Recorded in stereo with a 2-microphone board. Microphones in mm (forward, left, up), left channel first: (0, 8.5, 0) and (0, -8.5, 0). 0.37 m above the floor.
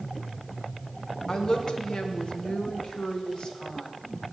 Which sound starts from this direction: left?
A woman speaking, at 1.3 s.